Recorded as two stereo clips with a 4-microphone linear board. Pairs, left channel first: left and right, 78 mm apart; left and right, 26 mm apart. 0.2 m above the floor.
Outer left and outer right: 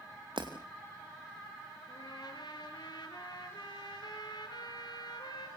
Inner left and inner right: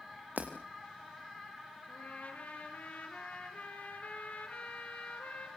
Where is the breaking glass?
80° right, 4.5 m.